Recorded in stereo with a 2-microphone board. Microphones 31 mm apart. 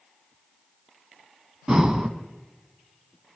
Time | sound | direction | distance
1.7 | breathing | 25° right (ahead or behind) | 0.9 m